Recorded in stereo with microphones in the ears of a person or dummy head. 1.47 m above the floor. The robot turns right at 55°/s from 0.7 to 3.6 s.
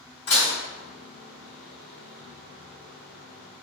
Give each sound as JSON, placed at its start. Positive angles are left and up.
{"t": 0.3, "sound": "dishes clattering", "side_deg": 55, "distance_m": 1.4}